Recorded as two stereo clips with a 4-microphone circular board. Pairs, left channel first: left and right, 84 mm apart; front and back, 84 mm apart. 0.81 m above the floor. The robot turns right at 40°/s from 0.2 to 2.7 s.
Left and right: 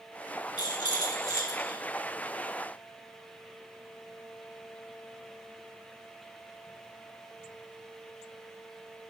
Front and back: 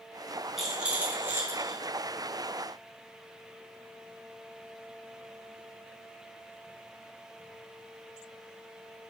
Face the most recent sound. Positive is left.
turn(degrees=180)